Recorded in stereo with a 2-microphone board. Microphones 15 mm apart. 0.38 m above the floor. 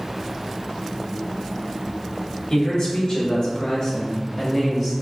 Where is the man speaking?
50° left (ahead or behind), 1.3 m; by 4.9 s 20° left (ahead or behind), 1.2 m.